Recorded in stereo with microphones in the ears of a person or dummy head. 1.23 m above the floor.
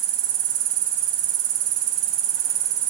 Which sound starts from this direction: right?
An insect, at 0.0 s.